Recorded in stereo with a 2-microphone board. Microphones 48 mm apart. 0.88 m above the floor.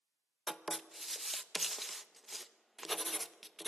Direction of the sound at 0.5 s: 5° right (ahead or behind).